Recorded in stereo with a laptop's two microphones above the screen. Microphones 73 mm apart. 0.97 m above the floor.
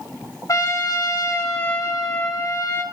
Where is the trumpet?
50° left (ahead or behind), 1.9 m.